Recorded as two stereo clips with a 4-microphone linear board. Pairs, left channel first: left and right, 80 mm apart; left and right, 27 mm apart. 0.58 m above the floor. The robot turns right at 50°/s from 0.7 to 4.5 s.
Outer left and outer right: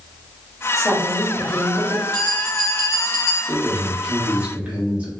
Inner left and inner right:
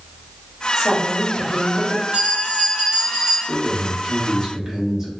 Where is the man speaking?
5° right (ahead or behind), 0.7 m; by 5.1 s 20° right (ahead or behind), 0.7 m.